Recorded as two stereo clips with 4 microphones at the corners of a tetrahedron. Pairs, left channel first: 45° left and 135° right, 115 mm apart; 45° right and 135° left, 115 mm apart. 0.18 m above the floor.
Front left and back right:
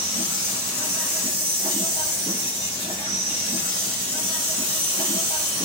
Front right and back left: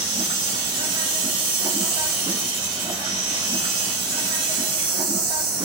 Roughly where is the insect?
Behind.